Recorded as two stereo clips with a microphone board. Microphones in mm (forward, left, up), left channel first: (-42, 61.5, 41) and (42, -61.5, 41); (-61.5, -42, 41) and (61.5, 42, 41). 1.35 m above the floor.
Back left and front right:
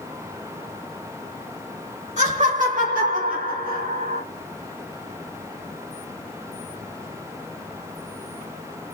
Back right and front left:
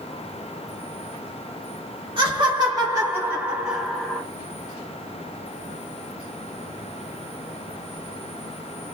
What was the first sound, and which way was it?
Laughter, 20° right.